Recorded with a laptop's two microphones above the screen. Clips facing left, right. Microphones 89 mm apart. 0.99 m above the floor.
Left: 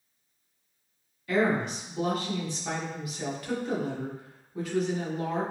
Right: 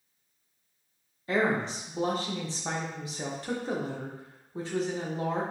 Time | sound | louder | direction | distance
1.3 | a woman speaking | left 1 dB | 30° right (ahead or behind) | 0.7 m